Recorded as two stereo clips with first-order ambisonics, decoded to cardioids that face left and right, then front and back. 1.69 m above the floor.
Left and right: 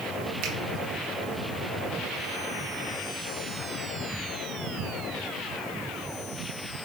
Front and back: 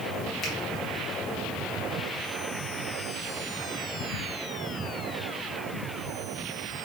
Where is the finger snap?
70° right, 2.5 m.